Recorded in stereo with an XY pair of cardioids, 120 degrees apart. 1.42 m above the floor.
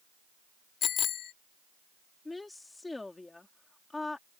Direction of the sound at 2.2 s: 15° left.